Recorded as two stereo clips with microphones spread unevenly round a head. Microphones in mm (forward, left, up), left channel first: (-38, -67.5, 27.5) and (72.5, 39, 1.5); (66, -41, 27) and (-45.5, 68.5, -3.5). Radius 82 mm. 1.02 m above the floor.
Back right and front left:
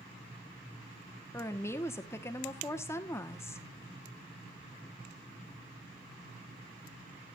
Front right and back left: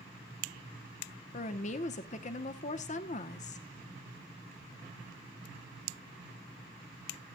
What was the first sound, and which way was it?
A woman speaking, 60° right.